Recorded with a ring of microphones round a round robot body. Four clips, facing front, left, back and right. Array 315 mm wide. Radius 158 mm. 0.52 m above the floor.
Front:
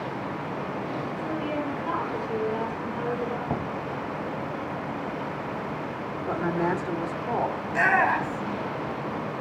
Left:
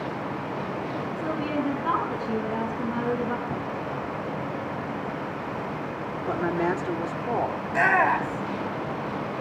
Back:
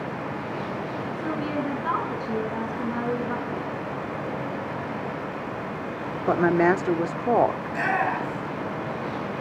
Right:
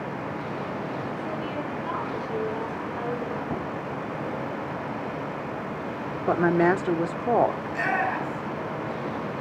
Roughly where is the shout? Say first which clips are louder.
Left 5 dB, front 2 dB; left.